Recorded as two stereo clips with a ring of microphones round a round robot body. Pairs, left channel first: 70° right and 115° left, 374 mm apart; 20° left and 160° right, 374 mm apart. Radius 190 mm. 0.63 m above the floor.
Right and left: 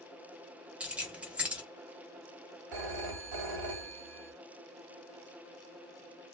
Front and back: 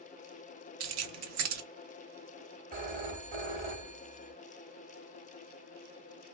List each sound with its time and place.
0.8 s keys jangling: 160° right, 0.6 m
2.7 s a phone ringing: 135° left, 1.2 m